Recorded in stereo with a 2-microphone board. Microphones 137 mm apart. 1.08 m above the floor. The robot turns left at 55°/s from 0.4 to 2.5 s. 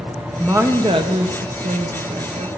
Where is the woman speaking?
10° right, 0.8 m; by 2.5 s 125° right, 0.8 m.